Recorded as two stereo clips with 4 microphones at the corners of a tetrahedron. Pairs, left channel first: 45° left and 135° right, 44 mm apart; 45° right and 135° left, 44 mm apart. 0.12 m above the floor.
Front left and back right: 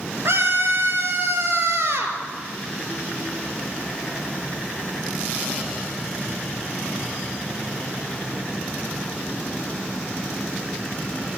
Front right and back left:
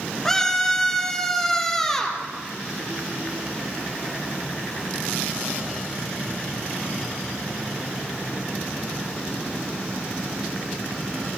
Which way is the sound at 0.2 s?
125° right.